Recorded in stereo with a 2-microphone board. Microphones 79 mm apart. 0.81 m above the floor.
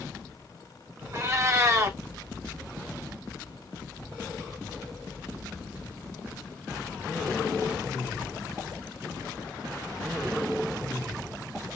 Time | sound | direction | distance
1.1 | a cat meowing | 40° right (ahead or behind) | 0.7 m